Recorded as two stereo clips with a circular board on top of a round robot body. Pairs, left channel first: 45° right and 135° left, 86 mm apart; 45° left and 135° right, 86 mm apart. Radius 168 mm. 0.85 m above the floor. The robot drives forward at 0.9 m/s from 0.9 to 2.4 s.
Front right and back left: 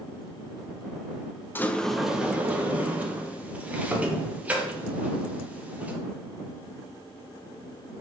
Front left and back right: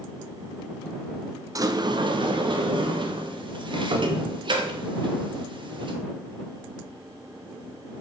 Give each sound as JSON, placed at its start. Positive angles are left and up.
{"t": 1.6, "sound": "a sliding door", "azimuth_deg": -100, "distance_m": 0.8}